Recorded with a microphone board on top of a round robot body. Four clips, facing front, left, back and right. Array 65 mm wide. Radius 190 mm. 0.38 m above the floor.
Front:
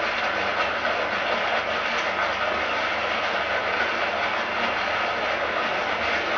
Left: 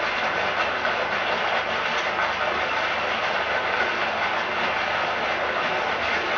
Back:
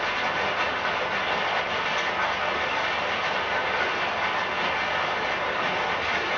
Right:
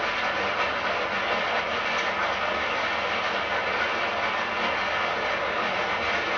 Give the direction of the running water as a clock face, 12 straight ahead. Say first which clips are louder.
Left 2 dB, front 1 dB; 10 o'clock.